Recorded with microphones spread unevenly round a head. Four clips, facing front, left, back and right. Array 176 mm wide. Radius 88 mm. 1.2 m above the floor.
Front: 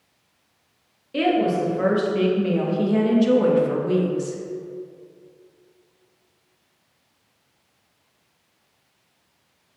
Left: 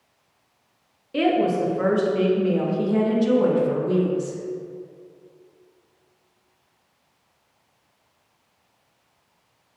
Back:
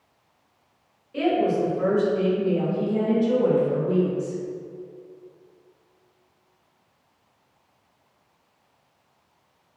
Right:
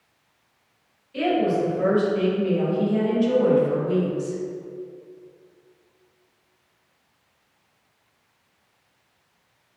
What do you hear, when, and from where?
1.1 s a woman speaking: 45° left, 2 m; by 4.4 s 5° right, 1.9 m